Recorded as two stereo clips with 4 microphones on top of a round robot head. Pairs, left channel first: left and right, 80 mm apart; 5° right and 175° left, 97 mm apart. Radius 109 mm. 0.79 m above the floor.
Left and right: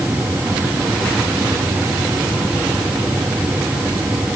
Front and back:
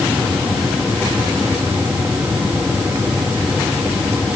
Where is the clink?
I don't hear a clink.